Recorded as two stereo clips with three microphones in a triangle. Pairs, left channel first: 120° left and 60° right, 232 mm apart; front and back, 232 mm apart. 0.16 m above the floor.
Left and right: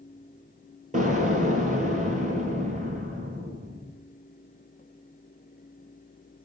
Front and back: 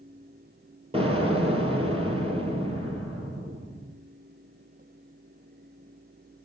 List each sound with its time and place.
0.9 s an explosion: 115° right, 3 m